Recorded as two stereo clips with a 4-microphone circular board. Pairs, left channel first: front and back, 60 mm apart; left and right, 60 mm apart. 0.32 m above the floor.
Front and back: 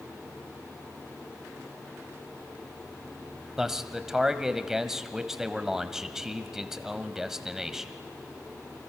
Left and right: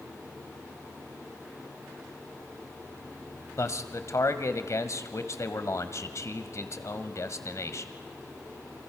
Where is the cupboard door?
I don't hear a cupboard door.